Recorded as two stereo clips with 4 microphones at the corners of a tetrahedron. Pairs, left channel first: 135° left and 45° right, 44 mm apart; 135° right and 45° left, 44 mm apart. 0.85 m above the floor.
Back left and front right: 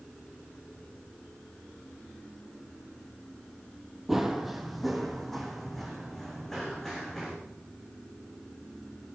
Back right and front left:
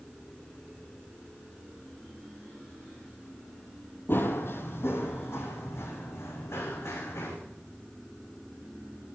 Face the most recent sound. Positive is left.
turn(degrees=-145)